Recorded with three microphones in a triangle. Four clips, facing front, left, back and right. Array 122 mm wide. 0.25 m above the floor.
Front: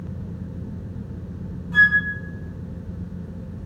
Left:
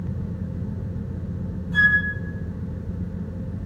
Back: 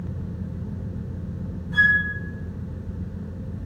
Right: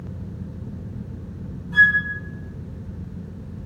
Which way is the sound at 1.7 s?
5° left.